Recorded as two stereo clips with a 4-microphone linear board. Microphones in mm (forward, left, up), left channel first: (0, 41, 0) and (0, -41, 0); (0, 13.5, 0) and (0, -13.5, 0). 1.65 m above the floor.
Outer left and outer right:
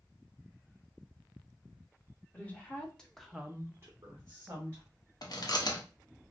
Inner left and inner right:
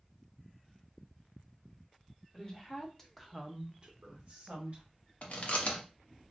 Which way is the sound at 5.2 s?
55° left (ahead or behind).